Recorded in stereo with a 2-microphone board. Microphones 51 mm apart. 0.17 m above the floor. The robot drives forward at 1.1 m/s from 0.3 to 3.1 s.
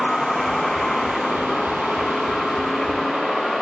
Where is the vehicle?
10° left (ahead or behind); by 3.6 s 5° left (ahead or behind).